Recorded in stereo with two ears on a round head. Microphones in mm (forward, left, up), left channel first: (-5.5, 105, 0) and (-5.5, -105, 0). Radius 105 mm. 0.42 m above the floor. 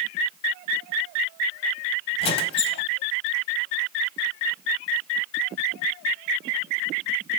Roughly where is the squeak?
Left.